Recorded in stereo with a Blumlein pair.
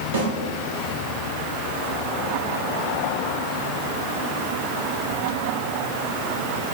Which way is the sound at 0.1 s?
60° right.